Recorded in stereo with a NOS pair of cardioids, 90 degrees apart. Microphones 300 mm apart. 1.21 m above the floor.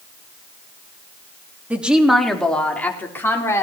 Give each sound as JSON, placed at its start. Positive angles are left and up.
{"t": 1.7, "sound": "a woman speaking", "azimuth_deg": -5, "distance_m": 3.0}